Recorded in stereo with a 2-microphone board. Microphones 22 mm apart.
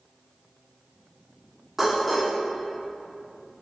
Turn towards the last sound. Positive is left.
turn(degrees=-10)  # may be behind; listen again after turning